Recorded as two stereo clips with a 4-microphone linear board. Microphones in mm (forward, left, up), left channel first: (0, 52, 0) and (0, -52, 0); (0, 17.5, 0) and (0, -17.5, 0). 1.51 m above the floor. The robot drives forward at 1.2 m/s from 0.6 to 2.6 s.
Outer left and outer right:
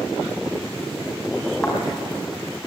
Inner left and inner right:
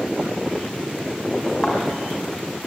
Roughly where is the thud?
Centre.